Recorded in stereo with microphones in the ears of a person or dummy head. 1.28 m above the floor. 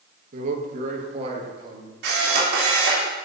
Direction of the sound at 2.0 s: 60° right (ahead or behind).